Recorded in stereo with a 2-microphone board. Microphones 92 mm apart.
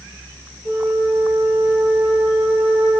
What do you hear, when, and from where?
0.7 s a flute: 50° left (ahead or behind), 5.5 m